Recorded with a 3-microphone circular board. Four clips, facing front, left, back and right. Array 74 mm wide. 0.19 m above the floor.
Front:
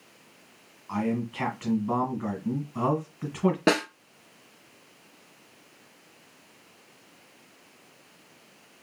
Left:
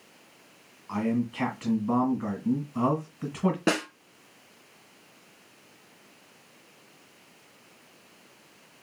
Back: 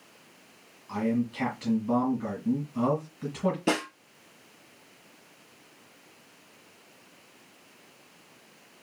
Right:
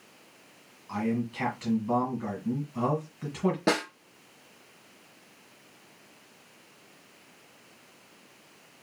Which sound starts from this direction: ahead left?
A man speaking, at 0.9 s.